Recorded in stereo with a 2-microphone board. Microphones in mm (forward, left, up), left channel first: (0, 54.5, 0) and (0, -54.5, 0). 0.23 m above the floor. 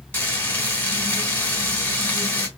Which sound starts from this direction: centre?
Frying, at 0.1 s.